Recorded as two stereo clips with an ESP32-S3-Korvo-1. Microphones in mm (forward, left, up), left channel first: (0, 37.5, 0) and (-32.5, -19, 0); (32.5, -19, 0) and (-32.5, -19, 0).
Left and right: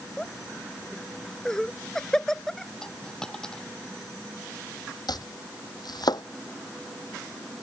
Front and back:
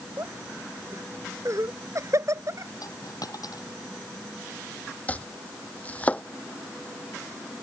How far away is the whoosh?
No whoosh in this recording.